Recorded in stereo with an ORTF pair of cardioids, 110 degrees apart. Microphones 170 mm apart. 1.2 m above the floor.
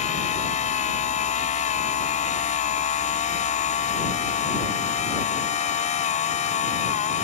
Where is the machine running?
45° left.